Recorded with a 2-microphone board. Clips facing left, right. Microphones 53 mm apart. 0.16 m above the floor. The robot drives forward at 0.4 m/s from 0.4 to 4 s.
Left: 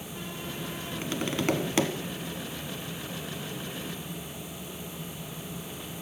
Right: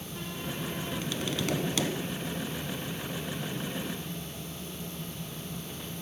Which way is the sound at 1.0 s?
35° left (ahead or behind).